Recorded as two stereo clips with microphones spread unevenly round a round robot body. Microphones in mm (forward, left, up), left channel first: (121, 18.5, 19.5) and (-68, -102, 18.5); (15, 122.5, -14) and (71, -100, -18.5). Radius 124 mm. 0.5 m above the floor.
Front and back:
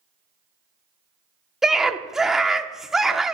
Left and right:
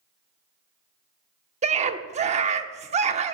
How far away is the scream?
About 0.7 m.